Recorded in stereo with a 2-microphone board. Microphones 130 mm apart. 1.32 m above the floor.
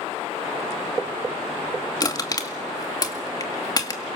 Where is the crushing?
30° left (ahead or behind), 1.9 m.